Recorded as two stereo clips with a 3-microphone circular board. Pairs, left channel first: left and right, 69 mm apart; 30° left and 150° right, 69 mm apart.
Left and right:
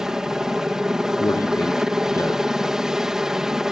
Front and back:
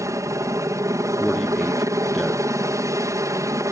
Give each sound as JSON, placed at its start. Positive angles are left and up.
{"t": 0.0, "sound": "a helicopter", "azimuth_deg": -170}
{"t": 1.2, "sound": "a man speaking", "azimuth_deg": 120}